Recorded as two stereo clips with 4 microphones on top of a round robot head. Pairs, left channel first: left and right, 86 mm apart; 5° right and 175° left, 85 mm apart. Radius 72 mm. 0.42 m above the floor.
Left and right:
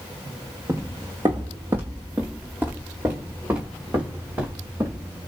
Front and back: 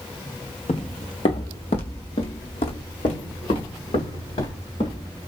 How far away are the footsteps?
About 0.6 m.